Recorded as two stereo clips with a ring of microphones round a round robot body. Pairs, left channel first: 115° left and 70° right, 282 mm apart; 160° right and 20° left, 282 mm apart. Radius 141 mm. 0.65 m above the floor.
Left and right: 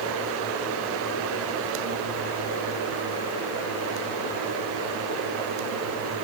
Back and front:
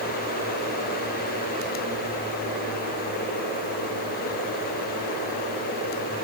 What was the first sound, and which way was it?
Only background noise.